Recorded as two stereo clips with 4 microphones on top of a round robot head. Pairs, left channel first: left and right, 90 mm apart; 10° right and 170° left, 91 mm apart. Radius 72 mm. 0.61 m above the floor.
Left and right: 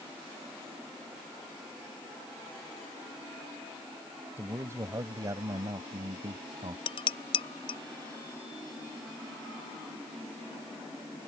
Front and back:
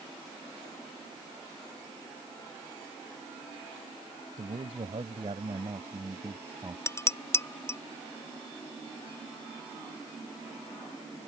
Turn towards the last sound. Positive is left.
turn(degrees=50)